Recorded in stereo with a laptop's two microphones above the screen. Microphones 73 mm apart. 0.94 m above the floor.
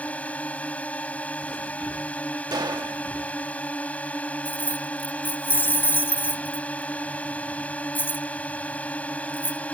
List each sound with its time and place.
0.0 s a drone: 20° left (ahead or behind)
2.5 s a gunshot: 65° right (ahead or behind)
4.5 s keys jangling: 30° left (ahead or behind)